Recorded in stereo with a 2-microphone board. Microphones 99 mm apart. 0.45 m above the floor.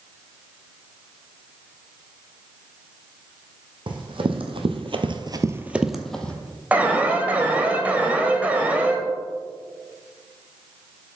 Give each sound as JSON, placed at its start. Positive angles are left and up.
{"t": 3.9, "sound": "running footsteps", "side_deg": -55, "distance_m": 1.7}
{"t": 6.7, "sound": "an alarm", "side_deg": -15, "distance_m": 1.2}